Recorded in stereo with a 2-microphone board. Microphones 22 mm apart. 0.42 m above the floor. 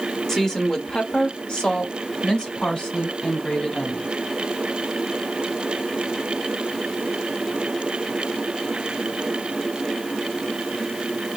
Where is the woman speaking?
25° left (ahead or behind), 1.0 m; by 4.1 s 55° left (ahead or behind), 3 m.